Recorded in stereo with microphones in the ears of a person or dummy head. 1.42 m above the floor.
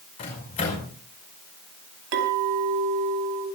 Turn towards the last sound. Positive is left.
turn(degrees=-65)  # may be behind; listen again after turning